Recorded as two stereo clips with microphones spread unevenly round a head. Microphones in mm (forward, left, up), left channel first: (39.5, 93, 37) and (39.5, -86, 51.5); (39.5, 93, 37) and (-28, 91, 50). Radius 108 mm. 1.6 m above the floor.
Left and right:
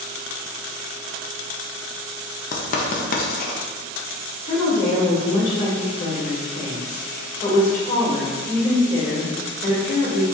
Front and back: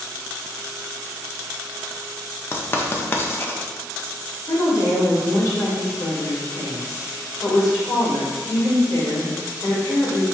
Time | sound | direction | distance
2.5 | writing | 60° left | 0.5 m
4.5 | a woman speaking | 40° left | 1.9 m